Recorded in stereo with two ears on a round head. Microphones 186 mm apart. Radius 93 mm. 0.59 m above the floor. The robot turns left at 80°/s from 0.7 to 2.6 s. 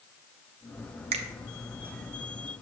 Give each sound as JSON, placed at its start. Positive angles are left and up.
{"t": 1.1, "sound": "a finger snap", "side_deg": -30, "distance_m": 0.7}